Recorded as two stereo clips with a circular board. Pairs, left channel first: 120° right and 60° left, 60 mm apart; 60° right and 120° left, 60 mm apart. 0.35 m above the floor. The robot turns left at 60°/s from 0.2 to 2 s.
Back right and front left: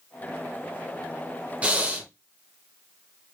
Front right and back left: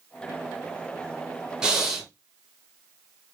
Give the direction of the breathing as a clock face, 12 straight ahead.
10 o'clock.